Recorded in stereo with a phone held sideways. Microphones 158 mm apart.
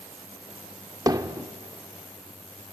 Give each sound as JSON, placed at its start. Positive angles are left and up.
{"t": 1.1, "sound": "hammering", "side_deg": -25, "distance_m": 0.6}